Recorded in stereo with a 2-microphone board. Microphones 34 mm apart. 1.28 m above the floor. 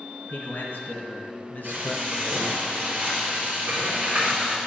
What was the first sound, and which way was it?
A man speaking, 60° left (ahead or behind).